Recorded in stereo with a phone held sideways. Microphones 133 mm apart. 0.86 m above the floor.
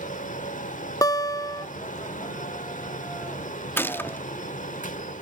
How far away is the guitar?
About 0.5 m.